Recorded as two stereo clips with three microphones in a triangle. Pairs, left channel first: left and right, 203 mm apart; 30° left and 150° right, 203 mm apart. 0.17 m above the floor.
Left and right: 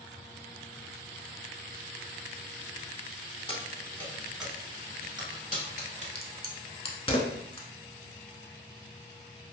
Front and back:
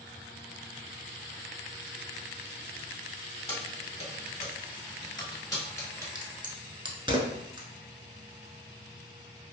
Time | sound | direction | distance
3.5 | keys jangling | 55° left | 0.9 m
6.2 | a crack | 150° left | 0.6 m